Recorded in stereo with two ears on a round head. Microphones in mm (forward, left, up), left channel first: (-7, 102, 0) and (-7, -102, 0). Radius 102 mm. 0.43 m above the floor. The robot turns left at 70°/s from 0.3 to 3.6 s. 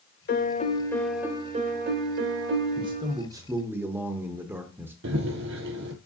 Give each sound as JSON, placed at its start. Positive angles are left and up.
{"t": 0.3, "sound": "a piano", "azimuth_deg": 55, "distance_m": 1.0}
{"t": 2.8, "sound": "a man speaking", "side_deg": -20, "distance_m": 0.8}
{"t": 5.0, "sound": "running footsteps", "side_deg": -55, "distance_m": 0.7}